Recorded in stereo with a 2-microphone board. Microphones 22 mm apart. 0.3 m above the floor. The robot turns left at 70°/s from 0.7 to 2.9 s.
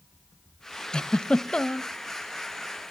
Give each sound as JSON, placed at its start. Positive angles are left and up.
{"t": 0.9, "sound": "a giggle", "azimuth_deg": 120, "distance_m": 0.6}